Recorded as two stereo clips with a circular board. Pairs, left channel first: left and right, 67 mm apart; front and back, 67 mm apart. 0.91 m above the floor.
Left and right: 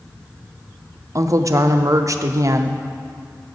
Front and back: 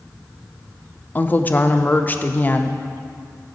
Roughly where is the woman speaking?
Ahead right.